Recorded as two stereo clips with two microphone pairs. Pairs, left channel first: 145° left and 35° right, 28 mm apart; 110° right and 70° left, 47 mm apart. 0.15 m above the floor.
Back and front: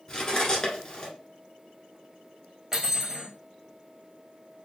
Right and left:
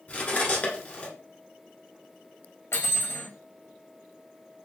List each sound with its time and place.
0.1 s cutlery clinking: 155° right, 1.2 m
2.7 s cutlery clinking: 105° right, 1.2 m